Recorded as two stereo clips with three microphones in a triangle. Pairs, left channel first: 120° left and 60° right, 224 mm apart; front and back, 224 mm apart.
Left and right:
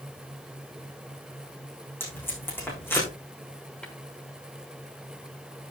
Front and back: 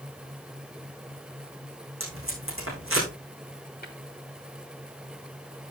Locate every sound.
2.0 s tape being pulled: 160° right, 7 m
3.8 s tapping: 35° left, 3.5 m